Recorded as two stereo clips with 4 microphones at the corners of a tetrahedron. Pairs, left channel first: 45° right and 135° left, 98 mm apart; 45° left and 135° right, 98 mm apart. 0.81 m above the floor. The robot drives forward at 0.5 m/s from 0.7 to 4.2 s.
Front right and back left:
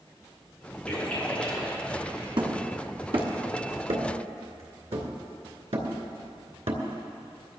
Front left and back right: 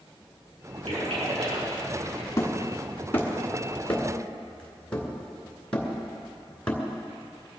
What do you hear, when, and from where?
0.9 s a splash: 125° right, 6 m; by 2.3 s 130° right, 6.5 m
2.4 s hammering: 105° left, 2 m; by 6.8 s 125° left, 2.5 m